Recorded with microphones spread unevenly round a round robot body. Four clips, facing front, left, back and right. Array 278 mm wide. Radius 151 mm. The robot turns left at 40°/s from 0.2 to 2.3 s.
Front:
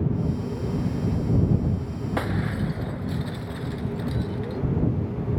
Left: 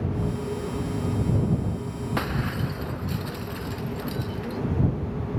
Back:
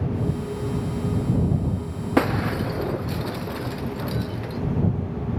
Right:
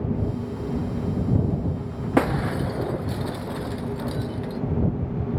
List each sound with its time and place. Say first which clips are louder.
2.2 s breaking glass: right 8 dB, back 7 dB; 140° right; by 4.6 s 150° right